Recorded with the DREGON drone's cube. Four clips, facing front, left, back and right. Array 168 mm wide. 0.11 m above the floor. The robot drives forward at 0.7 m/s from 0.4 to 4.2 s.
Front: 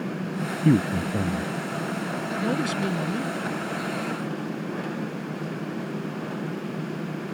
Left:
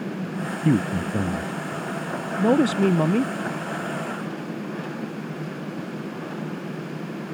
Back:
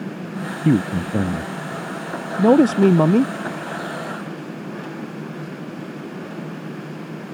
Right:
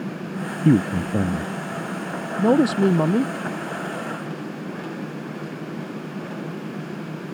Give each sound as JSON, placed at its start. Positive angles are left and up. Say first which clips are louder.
{"t": 0.7, "sound": "a man speaking", "louder": "right 4 dB, back 3 dB", "azimuth_deg": -120}